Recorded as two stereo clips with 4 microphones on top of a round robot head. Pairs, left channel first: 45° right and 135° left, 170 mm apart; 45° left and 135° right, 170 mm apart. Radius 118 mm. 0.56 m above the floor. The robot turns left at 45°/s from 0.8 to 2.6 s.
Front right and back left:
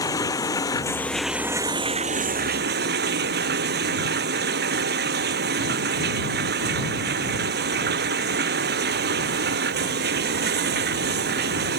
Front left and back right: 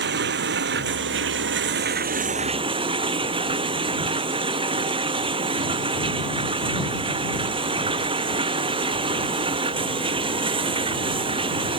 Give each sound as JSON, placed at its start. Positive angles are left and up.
{"t": 0.0, "sound": "running water", "azimuth_deg": -115}